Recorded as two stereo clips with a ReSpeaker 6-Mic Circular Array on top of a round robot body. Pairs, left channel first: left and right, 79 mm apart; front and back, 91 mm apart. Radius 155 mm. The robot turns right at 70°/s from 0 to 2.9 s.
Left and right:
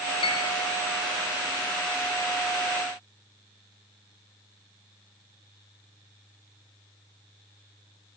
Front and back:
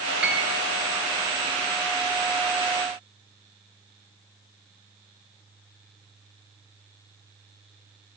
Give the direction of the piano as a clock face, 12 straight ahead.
9 o'clock.